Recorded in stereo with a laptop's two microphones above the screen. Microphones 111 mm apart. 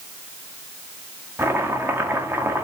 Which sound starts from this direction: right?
Chopping, at 1.4 s.